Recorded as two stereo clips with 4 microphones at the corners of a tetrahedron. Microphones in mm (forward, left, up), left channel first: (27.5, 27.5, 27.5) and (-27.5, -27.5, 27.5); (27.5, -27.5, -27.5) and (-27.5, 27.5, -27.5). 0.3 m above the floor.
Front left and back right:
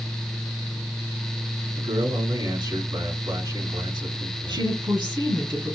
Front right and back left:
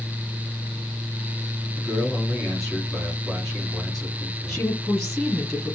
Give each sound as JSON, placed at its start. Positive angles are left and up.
{"t": 1.8, "sound": "a man speaking", "azimuth_deg": -130, "distance_m": 4.0}
{"t": 4.5, "sound": "a woman speaking", "azimuth_deg": -135, "distance_m": 3.5}